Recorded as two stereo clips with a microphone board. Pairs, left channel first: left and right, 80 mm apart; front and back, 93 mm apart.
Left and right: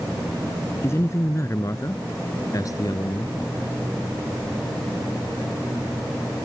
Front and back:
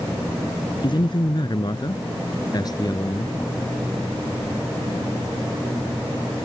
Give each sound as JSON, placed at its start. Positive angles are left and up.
{"t": 0.8, "sound": "a man speaking", "azimuth_deg": 35}